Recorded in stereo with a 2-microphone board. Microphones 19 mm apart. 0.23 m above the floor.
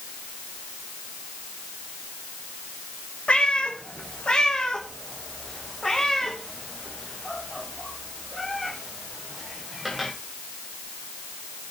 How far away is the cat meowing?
About 3 m.